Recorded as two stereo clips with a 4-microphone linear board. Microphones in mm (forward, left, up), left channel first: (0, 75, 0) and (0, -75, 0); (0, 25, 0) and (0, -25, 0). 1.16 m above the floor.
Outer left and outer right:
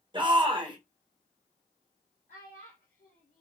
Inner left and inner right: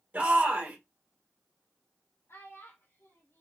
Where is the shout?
35° right (ahead or behind), 1.3 m.